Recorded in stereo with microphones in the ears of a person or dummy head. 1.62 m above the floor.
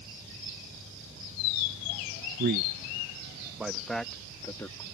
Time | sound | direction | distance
2.4 | a man speaking | 50° right (ahead or behind) | ?